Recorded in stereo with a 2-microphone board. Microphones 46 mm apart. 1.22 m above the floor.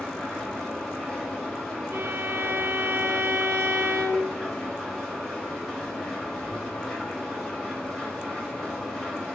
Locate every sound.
0.0 s an engine running: 10° left (ahead or behind), 3 m
1.9 s a violin: 65° right (ahead or behind), 1.3 m